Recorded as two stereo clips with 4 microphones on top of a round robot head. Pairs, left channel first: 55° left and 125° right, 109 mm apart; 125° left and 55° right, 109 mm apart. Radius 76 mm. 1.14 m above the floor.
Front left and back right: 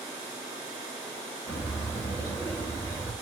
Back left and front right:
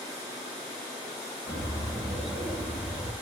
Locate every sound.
1.5 s a bird: 20° right, 1.5 m